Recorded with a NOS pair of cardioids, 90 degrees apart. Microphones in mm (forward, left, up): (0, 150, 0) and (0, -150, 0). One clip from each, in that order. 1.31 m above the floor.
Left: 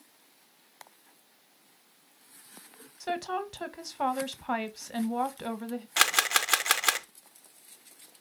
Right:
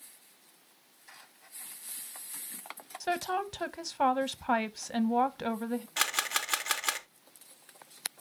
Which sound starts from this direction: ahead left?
A camera shutter, at 6.0 s.